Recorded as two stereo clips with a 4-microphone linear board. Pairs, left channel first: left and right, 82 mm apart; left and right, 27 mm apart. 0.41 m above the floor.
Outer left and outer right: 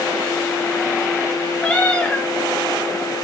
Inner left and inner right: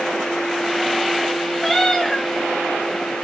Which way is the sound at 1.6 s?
15° left (ahead or behind).